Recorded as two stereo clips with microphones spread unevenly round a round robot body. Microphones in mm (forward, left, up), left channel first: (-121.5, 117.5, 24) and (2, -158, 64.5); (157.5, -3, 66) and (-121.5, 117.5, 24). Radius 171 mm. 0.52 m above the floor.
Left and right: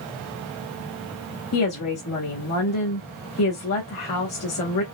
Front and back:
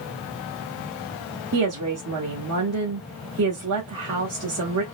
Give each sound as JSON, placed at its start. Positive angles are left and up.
{"t": 1.5, "sound": "a woman speaking", "azimuth_deg": 135, "distance_m": 1.3}